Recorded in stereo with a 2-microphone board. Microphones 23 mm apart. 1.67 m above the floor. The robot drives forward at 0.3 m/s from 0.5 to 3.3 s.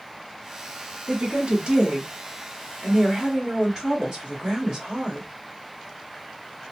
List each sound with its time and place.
1.1 s a woman speaking: 50° right (ahead or behind), 0.9 m; by 5.3 s 30° right (ahead or behind), 1.4 m